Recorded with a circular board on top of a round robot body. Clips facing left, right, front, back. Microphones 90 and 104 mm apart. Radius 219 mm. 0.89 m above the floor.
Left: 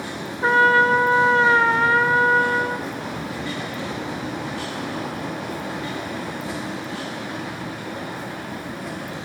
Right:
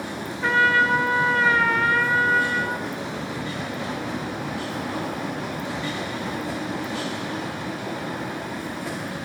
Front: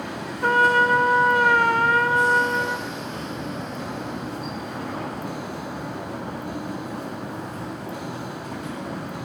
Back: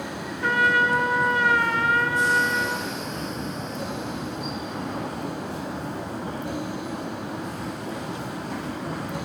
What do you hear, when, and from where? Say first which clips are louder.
0.4 s a trumpet: left 4 dB, front 3 dB; 35° left, 0.6 m